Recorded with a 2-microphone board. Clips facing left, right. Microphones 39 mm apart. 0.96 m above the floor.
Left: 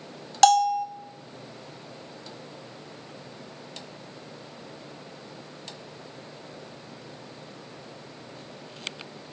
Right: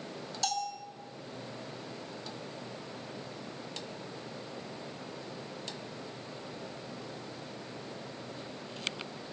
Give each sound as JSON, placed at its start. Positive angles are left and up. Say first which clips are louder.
{"t": 0.4, "sound": "a bell", "louder": "left 17 dB", "side_deg": 65, "distance_m": 0.6}